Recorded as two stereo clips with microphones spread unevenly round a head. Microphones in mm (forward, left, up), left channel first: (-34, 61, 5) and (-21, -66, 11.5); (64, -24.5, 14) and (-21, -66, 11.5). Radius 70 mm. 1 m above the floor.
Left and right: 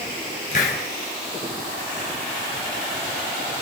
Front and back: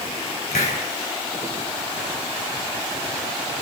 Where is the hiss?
55° left, 5 m.